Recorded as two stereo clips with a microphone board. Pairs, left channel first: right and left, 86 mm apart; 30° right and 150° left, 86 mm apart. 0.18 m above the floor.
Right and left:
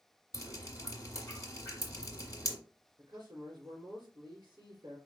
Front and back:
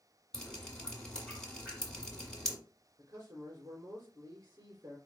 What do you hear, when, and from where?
0.3 s dripping: 105° right, 1.6 m
3.0 s a man speaking: 110° left, 3.5 m